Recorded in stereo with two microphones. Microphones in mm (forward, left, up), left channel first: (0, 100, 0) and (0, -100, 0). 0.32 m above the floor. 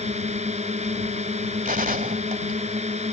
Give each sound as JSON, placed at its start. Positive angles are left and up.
{"t": 0.0, "sound": "a drone", "side_deg": -35}
{"t": 1.6, "sound": "a gunshot", "side_deg": -45}